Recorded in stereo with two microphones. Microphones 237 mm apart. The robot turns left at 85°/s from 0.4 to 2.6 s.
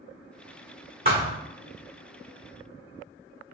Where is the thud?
40° right (ahead or behind), 1.2 m; by 1.4 s 10° right (ahead or behind), 1.2 m.